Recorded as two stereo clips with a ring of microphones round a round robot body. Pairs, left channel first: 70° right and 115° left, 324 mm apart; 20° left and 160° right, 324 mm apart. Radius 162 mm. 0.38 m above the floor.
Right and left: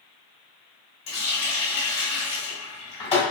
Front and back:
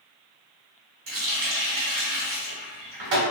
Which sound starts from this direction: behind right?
A running tap, at 1.1 s.